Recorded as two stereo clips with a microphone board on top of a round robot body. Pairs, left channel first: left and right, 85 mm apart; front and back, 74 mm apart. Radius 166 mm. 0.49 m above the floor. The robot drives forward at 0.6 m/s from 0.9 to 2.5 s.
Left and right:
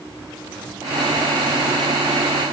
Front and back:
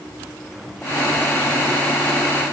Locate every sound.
Only background noise.